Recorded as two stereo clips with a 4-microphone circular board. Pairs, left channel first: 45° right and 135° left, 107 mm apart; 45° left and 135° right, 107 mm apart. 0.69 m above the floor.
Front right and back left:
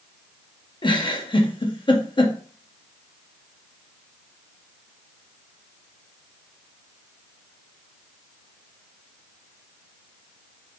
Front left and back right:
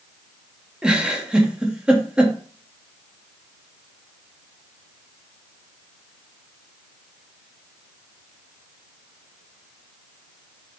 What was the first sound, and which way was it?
A giggle, 55° right.